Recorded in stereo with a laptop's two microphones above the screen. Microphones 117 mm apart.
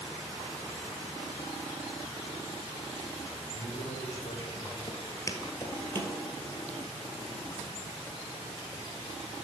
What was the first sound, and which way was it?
A man speaking, 75° left (ahead or behind).